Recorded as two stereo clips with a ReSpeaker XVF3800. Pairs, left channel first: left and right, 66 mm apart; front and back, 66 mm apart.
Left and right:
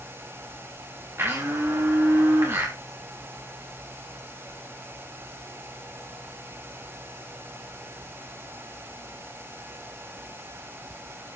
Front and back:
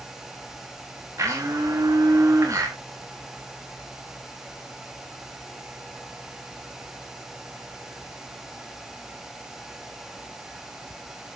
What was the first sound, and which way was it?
A blender, 140° right.